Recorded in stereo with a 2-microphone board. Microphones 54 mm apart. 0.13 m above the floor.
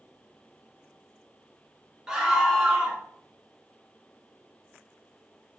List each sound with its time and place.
2.1 s a scream: 10° right (ahead or behind), 1.2 m